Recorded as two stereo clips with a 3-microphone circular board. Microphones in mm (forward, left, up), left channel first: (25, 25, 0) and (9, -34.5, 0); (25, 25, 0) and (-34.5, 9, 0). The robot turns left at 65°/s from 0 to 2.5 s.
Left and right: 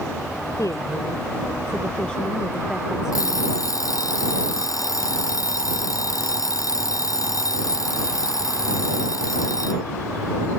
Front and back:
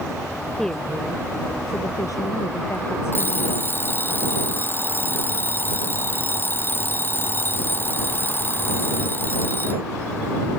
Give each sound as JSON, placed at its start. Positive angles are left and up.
{"t": 0.6, "sound": "a woman speaking", "azimuth_deg": 95}
{"t": 3.1, "sound": "an alarm clock", "azimuth_deg": 65}